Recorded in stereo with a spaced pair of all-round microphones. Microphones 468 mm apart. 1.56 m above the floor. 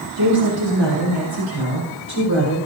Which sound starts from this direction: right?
A woman speaking, at 0.2 s.